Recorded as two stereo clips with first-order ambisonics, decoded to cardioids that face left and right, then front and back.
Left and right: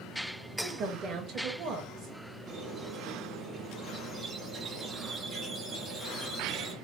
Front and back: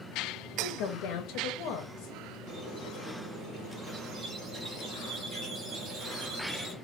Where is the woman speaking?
30° right, 0.6 m.